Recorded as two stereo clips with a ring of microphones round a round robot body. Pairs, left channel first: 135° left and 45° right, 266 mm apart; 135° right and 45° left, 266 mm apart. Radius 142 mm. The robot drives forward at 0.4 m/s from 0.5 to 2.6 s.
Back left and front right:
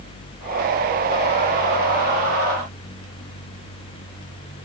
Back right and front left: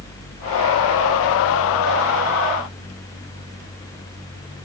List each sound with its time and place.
Only background noise.